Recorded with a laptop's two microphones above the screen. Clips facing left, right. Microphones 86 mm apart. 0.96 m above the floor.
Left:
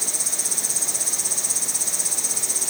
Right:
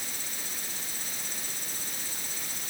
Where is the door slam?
No door slam in this recording.